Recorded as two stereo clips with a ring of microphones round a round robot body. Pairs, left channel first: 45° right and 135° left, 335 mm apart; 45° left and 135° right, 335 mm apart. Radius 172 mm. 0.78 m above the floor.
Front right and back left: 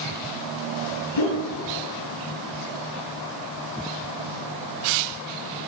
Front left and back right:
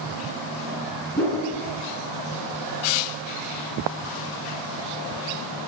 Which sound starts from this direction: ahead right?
A whoosh, at 1.2 s.